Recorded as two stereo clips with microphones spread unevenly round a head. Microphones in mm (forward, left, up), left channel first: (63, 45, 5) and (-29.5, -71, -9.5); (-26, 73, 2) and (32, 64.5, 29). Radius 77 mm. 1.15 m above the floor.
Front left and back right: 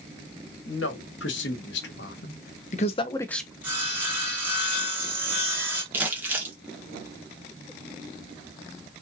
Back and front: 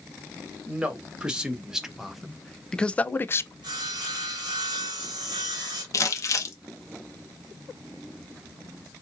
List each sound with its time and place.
0.7 s a man speaking: 65° left, 1.7 m; by 3.5 s 150° left, 0.5 m
3.6 s sawing: 55° right, 1.7 m
5.9 s crumpling: 155° left, 1.1 m